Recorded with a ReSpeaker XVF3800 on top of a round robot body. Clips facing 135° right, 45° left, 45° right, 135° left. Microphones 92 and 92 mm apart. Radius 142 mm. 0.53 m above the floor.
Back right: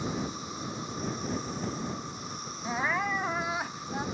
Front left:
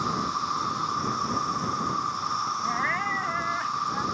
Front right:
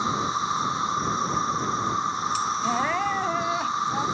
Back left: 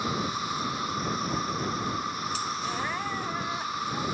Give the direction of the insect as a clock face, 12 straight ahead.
11 o'clock.